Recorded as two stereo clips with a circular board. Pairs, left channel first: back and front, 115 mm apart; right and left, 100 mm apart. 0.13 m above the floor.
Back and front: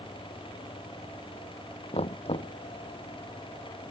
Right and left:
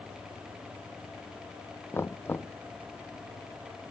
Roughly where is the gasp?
No gasp in this recording.